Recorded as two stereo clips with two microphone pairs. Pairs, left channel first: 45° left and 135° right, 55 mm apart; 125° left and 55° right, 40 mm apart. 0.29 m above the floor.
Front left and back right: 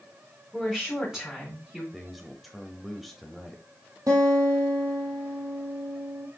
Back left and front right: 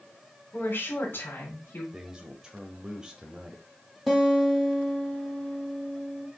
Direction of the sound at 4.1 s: 140° right.